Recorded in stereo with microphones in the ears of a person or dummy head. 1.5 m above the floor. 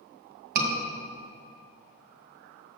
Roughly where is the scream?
Right.